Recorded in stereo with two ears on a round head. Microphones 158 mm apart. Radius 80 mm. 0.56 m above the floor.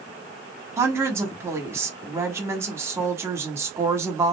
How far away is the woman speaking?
About 1.2 m.